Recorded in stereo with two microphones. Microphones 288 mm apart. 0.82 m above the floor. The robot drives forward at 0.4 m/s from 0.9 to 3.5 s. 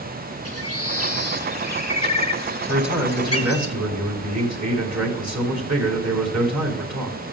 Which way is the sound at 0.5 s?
55° left (ahead or behind).